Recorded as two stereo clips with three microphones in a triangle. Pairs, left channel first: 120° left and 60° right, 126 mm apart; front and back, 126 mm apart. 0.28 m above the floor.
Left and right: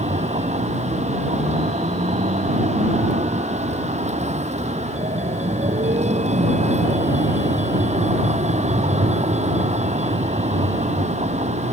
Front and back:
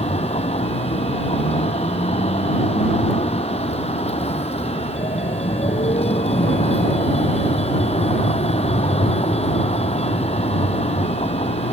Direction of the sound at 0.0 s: 35° right.